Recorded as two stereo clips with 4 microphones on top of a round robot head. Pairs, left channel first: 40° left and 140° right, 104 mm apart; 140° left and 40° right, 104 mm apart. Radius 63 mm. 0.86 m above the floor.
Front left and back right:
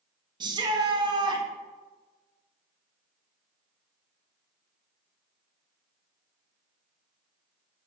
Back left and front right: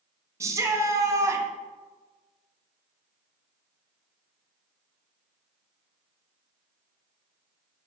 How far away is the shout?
About 1.3 m.